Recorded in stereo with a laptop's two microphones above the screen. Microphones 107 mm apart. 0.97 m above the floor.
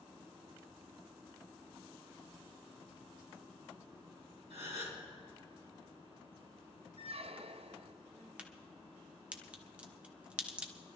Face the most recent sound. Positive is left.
turn(degrees=-10)  # may be behind; listen again after turning